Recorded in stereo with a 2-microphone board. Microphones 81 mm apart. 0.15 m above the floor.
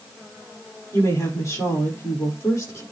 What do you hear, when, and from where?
0.9 s a woman speaking: 40° left (ahead or behind), 7 m